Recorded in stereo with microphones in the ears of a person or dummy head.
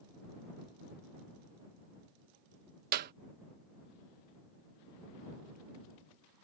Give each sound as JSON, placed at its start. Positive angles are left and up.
{"t": 2.9, "sound": "a clap", "side_deg": -50}